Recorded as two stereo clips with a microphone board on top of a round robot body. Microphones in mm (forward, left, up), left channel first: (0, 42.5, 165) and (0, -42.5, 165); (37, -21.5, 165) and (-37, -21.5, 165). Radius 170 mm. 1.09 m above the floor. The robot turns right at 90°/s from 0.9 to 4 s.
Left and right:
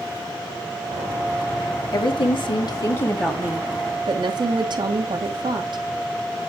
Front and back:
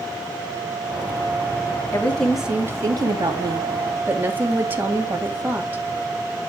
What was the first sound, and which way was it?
A woman speaking, 55° left.